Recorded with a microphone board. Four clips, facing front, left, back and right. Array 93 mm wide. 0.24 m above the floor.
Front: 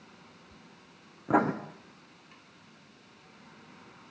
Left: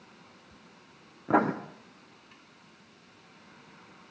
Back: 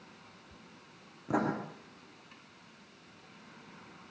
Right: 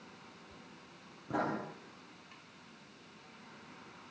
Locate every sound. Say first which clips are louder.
1.3 s writing: left 10 dB, front 6 dB; 60° left, 3 m